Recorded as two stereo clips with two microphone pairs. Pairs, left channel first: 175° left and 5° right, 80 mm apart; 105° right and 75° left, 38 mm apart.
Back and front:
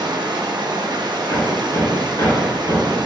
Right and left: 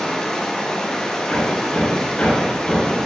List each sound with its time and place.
0.0 s running water: 30° right, 0.9 m
1.3 s hammering: 140° right, 3 m